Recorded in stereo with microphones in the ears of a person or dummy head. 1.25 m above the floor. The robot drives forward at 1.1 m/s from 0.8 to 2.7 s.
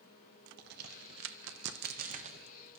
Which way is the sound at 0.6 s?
50° right (ahead or behind).